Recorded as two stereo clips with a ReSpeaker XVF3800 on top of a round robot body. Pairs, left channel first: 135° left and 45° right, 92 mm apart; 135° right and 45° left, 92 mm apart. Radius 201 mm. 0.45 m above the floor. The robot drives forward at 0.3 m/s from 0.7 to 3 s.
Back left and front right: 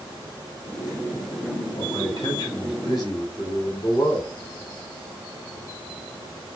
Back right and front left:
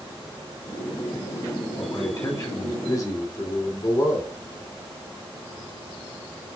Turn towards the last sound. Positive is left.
turn(degrees=170)